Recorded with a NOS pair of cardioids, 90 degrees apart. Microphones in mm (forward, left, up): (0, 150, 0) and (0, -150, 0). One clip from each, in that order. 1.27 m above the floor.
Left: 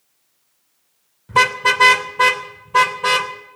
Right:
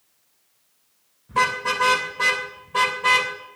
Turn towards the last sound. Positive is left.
turn(degrees=35)